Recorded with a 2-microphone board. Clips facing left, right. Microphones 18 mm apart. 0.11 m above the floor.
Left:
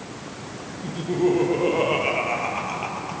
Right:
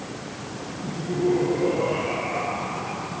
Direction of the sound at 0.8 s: 55° left (ahead or behind).